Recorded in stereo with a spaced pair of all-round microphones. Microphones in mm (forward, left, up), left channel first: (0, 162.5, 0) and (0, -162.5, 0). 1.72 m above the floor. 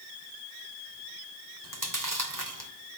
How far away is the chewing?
About 3 m.